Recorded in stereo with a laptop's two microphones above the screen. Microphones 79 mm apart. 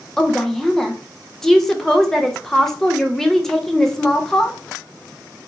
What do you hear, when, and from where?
0.2 s a woman speaking: 5° left (ahead or behind), 0.5 m